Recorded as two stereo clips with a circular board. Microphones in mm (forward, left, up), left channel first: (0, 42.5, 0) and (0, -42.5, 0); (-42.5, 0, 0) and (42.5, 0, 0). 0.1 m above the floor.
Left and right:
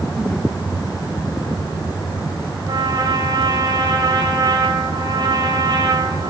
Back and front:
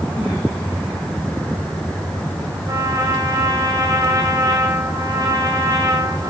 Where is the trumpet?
50° right, 10 m.